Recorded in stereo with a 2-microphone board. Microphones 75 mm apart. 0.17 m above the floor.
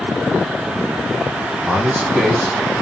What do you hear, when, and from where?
1.7 s a man speaking: 10° right (ahead or behind), 1.5 m